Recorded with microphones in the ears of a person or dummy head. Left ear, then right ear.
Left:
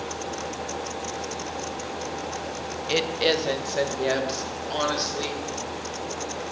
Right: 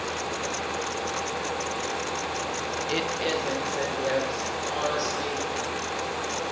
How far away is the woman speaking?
About 0.6 m.